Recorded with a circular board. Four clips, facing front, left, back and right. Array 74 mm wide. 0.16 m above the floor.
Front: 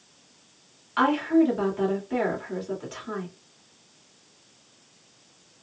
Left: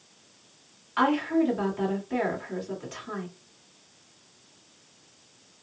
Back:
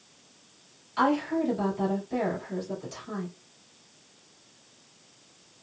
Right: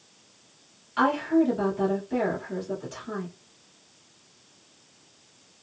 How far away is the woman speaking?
About 2.5 m.